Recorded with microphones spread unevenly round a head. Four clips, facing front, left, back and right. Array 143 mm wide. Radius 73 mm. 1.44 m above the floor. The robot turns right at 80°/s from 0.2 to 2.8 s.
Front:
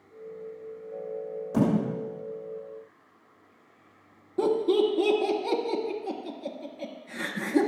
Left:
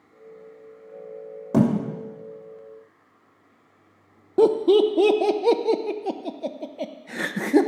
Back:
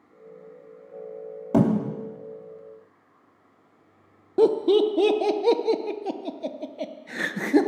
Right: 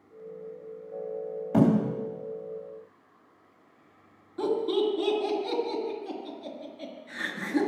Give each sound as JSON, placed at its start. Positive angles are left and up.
{"t": 1.5, "sound": "a thud", "azimuth_deg": 140, "distance_m": 2.5}
{"t": 4.4, "sound": "laughter", "azimuth_deg": 120, "distance_m": 0.9}